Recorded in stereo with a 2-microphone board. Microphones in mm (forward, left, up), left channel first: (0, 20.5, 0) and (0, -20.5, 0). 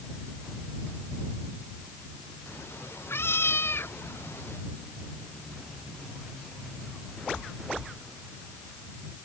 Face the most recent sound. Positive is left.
turn(degrees=75)  # may be behind; listen again after turning